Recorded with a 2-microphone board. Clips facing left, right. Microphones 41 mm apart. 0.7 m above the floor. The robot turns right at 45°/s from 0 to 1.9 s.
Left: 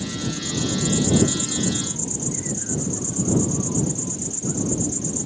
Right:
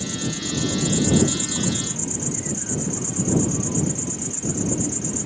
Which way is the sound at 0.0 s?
160° left.